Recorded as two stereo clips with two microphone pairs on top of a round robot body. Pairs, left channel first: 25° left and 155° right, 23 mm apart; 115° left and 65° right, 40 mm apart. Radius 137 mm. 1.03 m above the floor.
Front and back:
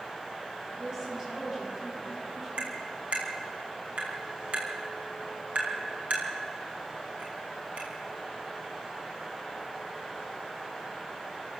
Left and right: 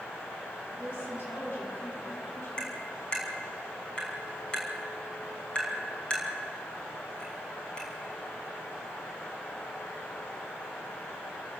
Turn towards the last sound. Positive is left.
turn(degrees=180)